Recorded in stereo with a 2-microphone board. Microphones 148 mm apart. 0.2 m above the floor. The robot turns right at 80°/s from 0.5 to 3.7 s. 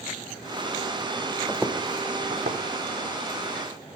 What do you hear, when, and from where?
1.5 s footsteps: 5° left (ahead or behind), 0.7 m; by 4.0 s 30° left (ahead or behind), 2.5 m